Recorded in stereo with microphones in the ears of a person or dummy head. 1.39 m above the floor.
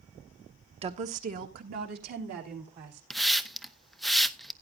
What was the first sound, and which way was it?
A woman speaking, 30° right (ahead or behind).